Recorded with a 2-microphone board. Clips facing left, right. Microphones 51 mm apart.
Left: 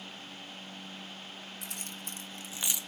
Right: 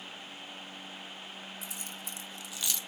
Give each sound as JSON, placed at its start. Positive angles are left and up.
{"t": 1.6, "sound": "keys jangling", "side_deg": 60, "distance_m": 2.0}